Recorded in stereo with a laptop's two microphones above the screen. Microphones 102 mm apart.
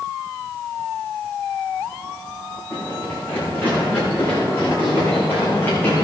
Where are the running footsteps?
20° left (ahead or behind), 6 m; by 6.0 s 25° left (ahead or behind), 4.5 m.